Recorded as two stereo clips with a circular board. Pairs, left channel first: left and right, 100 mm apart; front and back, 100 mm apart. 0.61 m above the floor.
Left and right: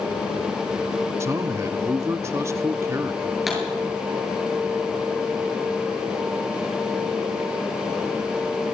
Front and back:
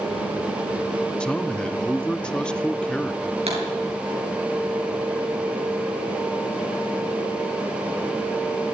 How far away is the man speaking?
About 0.8 m.